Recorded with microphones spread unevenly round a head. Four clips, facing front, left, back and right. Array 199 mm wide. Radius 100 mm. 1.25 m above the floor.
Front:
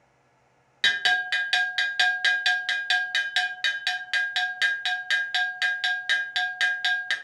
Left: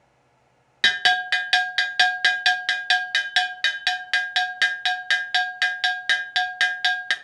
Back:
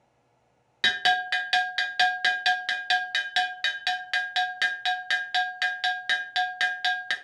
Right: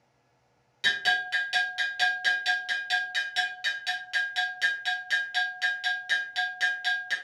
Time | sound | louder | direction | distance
0.8 | a bell | left 6 dB, back 1 dB | 80° left | 0.6 m